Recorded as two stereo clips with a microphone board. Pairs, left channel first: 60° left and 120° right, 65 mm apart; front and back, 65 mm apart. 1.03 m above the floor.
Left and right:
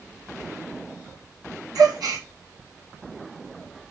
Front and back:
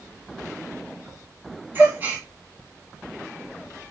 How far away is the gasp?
About 2 m.